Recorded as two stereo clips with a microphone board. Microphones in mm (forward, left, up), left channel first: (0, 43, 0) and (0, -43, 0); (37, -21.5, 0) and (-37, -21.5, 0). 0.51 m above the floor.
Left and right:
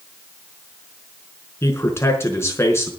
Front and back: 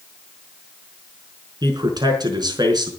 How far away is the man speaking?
About 4.5 m.